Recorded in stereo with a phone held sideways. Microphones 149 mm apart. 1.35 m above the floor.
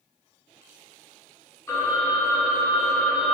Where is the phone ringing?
20° left (ahead or behind), 0.7 m.